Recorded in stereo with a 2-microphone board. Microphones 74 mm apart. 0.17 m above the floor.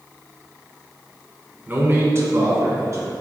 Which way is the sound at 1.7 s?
25° right (ahead or behind).